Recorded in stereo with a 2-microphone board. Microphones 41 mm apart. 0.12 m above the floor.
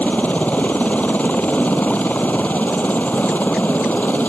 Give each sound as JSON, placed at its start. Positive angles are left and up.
{"t": 0.0, "sound": "a helicopter", "side_deg": 40}